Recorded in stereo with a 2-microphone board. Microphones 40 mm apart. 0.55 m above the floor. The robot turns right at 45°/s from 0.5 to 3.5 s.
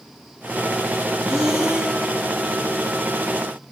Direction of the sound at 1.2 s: 175° left.